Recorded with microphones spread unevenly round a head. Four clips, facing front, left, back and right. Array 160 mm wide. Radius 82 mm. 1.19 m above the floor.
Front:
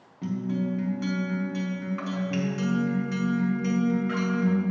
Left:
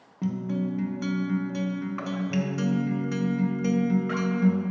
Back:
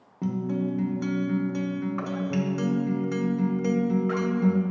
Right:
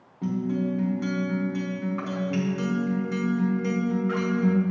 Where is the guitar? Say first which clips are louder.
Right 2 dB, back 1 dB; 170° left, 0.7 m.